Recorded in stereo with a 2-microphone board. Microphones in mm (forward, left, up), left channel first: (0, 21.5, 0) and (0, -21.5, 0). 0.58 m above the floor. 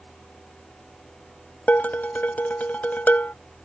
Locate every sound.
1.7 s dishes clattering: 45° left (ahead or behind)